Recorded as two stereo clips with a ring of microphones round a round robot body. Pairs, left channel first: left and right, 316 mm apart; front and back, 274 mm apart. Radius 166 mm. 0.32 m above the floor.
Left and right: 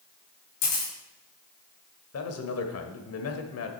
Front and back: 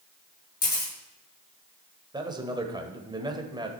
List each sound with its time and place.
0.6 s a camera shutter: 55° left, 6 m
2.1 s a man speaking: 110° left, 1.5 m